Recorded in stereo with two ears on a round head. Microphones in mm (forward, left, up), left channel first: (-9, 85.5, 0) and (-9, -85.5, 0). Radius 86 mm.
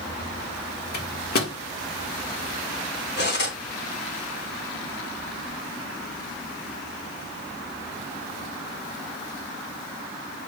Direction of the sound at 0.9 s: 55° left (ahead or behind).